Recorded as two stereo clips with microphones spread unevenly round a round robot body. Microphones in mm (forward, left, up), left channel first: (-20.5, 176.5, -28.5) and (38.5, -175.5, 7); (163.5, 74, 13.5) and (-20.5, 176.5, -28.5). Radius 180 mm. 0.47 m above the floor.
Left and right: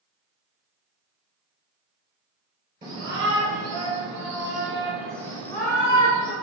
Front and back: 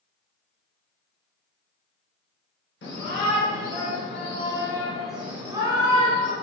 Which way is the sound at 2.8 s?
Straight ahead.